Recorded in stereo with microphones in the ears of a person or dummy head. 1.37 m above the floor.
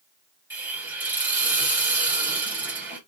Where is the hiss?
20° right (ahead or behind), 1.6 m.